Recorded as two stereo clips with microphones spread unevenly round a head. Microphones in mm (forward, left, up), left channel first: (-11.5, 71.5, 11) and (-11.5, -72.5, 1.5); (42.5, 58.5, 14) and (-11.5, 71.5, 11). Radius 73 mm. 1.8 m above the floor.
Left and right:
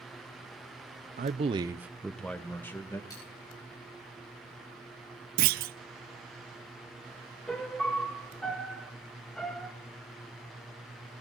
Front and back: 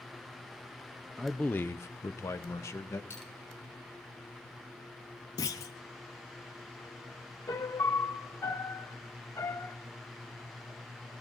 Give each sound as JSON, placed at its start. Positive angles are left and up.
{"t": 1.2, "sound": "a man speaking", "azimuth_deg": -110, "distance_m": 0.7}
{"t": 3.1, "sound": "a dropped coin", "azimuth_deg": 25, "distance_m": 9.5}
{"t": 5.4, "sound": "a clunk", "azimuth_deg": -60, "distance_m": 0.6}
{"t": 7.5, "sound": "a piano", "azimuth_deg": 5, "distance_m": 1.7}